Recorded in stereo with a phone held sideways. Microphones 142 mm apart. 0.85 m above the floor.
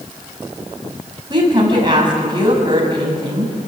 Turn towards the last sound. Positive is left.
turn(degrees=-35)  # may be behind; listen again after turning